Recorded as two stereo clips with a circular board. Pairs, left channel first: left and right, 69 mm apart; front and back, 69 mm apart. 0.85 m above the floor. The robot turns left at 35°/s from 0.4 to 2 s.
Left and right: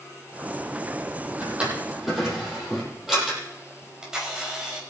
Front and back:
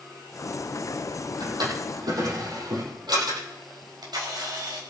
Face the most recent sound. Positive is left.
turn(degrees=-170)